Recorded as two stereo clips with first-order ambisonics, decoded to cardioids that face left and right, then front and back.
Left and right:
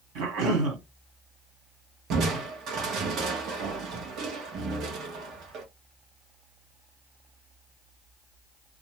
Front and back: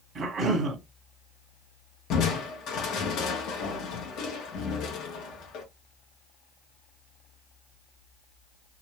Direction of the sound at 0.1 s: 110° right.